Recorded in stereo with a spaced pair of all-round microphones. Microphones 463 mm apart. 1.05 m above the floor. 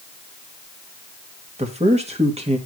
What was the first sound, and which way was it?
A man speaking, 15° right (ahead or behind).